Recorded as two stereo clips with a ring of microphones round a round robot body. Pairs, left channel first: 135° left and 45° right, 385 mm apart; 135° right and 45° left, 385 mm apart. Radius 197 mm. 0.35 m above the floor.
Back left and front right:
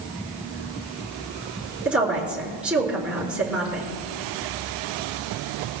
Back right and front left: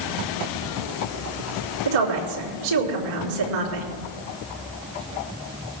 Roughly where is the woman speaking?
Ahead left.